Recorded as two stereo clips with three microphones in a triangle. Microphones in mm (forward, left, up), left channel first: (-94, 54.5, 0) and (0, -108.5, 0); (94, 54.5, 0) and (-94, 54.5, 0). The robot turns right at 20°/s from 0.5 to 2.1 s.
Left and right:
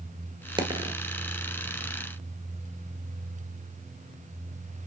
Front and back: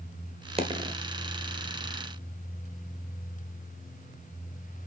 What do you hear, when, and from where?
0.6 s a dropped coin: 125° right, 1.3 m; by 0.9 s 120° right, 1.3 m